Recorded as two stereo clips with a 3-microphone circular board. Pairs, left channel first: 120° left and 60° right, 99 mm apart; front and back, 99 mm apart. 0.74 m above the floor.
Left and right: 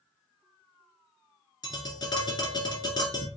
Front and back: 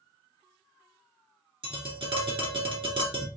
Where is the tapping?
160° left, 1.9 m.